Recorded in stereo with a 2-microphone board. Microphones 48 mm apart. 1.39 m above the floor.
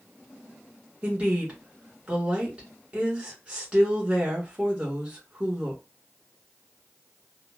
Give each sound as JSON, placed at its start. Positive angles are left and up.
{"t": 1.0, "sound": "a woman speaking", "side_deg": -25, "distance_m": 1.9}